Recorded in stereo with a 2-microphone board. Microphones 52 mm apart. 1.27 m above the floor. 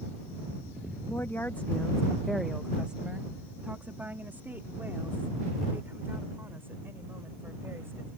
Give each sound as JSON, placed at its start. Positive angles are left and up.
{"t": 1.1, "sound": "a woman speaking", "side_deg": 60}